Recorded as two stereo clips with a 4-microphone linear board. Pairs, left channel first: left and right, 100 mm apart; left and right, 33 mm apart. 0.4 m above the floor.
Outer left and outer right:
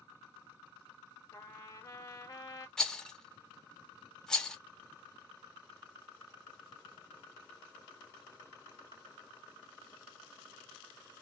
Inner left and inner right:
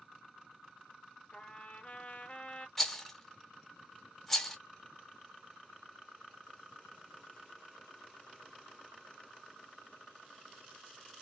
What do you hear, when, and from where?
1.3 s a trumpet: 35° left (ahead or behind), 0.7 m
2.8 s a rattle: 5° left (ahead or behind), 0.6 m